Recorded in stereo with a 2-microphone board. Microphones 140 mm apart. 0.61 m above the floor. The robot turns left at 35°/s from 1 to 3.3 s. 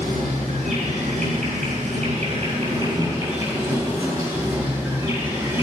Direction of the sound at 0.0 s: 85° right.